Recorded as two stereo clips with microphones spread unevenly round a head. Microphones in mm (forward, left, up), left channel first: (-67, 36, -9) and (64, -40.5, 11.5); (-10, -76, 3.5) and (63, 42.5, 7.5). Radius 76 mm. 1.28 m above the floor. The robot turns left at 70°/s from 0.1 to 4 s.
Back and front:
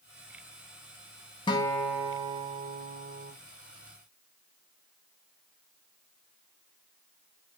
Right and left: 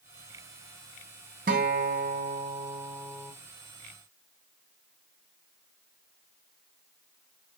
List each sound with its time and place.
1.5 s a guitar: 85° left, 0.6 m; by 3.3 s 45° right, 0.6 m